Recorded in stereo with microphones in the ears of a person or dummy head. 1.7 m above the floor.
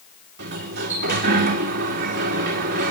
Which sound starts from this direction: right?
A sliding door, at 0.4 s.